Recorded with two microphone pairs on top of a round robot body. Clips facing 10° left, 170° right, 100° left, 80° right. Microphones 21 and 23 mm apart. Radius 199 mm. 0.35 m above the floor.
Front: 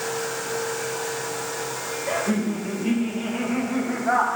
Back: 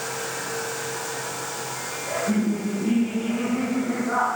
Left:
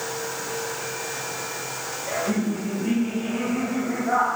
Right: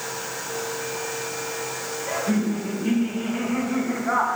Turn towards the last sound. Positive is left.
turn(degrees=-5)